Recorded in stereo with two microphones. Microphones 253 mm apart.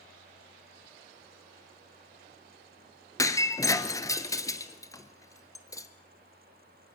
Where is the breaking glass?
15° left (ahead or behind), 1.0 m.